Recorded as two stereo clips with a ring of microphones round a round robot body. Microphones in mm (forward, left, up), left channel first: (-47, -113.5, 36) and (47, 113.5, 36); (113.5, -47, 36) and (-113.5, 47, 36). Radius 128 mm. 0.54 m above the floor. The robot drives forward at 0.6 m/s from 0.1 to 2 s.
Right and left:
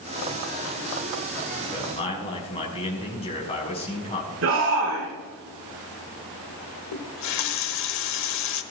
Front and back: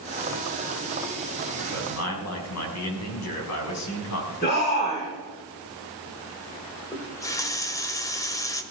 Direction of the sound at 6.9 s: 100° right.